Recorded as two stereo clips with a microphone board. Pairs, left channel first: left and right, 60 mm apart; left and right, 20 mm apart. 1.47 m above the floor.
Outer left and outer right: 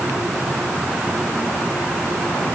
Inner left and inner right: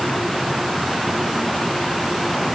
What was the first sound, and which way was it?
Only background noise.